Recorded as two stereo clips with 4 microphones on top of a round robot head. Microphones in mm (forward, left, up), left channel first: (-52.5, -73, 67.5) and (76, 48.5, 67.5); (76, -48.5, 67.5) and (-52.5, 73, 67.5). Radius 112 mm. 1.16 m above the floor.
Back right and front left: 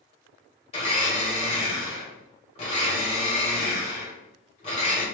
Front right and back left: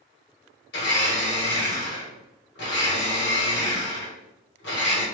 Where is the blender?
80° right, 1.6 m.